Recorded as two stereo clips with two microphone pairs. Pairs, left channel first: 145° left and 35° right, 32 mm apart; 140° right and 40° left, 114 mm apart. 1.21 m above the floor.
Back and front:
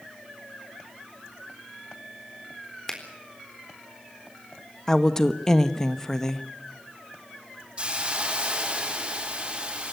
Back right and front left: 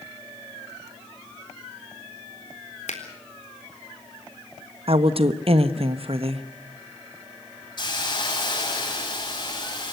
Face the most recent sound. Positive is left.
turn(degrees=-90)